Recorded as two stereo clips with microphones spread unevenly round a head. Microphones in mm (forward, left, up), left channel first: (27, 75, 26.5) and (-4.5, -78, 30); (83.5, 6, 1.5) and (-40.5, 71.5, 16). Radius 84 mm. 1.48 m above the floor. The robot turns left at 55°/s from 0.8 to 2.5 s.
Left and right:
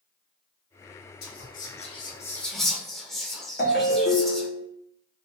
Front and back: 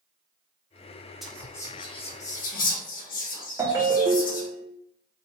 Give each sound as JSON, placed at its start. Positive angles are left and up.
{"t": 1.2, "sound": "whispering", "azimuth_deg": 60, "distance_m": 1.0}
{"t": 3.6, "sound": "a ringtone", "azimuth_deg": 100, "distance_m": 0.9}